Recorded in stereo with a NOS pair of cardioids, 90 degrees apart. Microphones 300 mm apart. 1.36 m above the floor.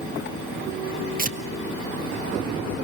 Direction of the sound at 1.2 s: 30° right.